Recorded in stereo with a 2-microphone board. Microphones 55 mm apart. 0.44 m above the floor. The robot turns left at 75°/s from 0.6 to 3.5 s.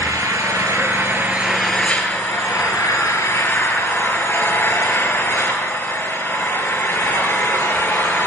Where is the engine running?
100° right, 4 m; by 8.3 s 40° left, 4 m.